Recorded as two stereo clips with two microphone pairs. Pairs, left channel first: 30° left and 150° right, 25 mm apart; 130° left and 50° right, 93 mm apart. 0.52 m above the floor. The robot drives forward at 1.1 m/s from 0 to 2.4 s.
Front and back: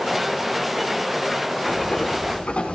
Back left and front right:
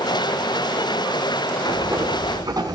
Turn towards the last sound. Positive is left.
turn(degrees=-5)